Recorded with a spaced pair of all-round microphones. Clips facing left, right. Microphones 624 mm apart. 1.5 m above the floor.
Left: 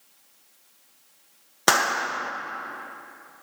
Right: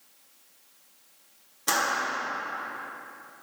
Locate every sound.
1.7 s a clap: 80° left, 0.8 m